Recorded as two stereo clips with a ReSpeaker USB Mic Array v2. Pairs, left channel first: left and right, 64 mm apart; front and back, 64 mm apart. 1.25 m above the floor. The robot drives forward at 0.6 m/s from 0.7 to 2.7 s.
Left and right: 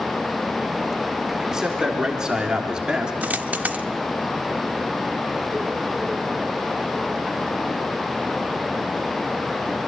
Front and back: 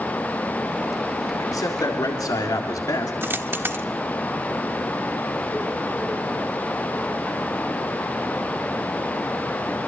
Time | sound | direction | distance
1.4 | a man speaking | 10° right | 4 m
3.2 | a dropped coin | 145° right | 1.1 m